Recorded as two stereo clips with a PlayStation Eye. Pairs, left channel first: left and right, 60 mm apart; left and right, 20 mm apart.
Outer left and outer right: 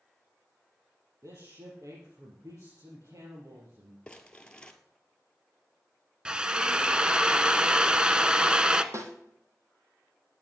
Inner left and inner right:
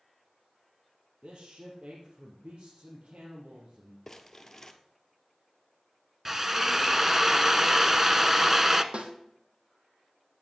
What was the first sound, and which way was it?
A man speaking, 65° right (ahead or behind).